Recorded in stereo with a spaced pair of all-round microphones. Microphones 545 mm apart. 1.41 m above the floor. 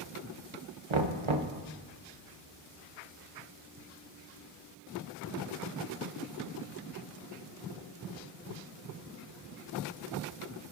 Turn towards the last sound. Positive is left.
turn(degrees=-60)  # may be behind; listen again after turning